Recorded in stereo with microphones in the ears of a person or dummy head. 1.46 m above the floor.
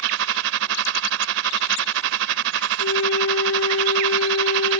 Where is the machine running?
70° right (ahead or behind).